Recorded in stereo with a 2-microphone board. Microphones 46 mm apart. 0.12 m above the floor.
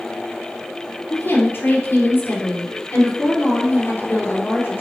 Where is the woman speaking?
45° left (ahead or behind), 2.5 m.